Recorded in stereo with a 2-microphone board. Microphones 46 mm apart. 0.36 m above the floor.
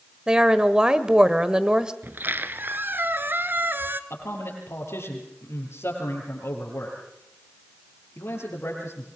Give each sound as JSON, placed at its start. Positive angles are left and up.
{"t": 0.3, "sound": "a woman speaking", "side_deg": -20, "distance_m": 1.1}
{"t": 2.0, "sound": "a squeak", "side_deg": -55, "distance_m": 1.0}
{"t": 4.1, "sound": "a man speaking", "side_deg": 85, "distance_m": 6.5}